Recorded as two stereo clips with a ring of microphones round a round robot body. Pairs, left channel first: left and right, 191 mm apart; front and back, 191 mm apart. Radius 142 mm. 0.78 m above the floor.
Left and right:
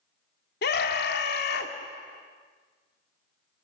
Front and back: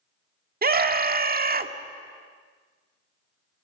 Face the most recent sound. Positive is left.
turn(degrees=135)